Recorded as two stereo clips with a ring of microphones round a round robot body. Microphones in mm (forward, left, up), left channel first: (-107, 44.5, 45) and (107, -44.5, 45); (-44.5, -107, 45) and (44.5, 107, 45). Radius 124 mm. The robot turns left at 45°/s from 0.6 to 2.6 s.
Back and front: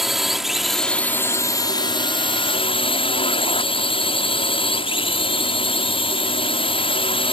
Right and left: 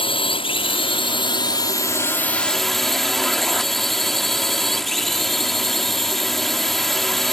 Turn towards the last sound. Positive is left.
turn(degrees=160)